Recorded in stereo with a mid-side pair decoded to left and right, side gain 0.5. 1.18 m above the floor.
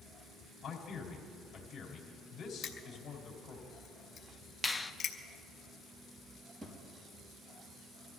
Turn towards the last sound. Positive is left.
turn(degrees=-25)